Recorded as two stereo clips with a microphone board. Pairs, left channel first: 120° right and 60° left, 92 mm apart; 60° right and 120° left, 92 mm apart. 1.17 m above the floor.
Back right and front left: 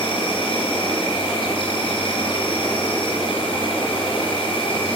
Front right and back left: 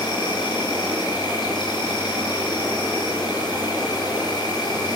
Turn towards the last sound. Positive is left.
turn(degrees=-100)